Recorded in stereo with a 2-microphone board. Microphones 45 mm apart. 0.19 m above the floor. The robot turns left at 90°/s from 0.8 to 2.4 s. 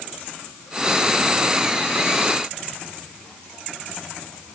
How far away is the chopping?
I don't hear chopping.